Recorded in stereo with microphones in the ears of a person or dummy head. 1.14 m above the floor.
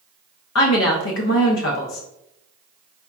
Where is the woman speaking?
70° left (ahead or behind), 0.8 m.